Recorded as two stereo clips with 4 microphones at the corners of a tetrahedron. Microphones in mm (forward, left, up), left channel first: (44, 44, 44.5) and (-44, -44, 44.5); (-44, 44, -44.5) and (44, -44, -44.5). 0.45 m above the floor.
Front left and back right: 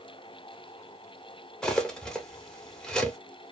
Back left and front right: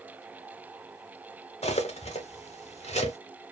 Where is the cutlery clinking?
130° left, 0.9 m.